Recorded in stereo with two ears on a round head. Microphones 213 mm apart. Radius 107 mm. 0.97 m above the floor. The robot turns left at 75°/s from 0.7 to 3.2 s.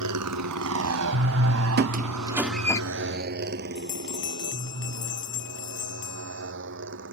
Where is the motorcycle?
85° right; by 7.1 s 55° right (ahead or behind).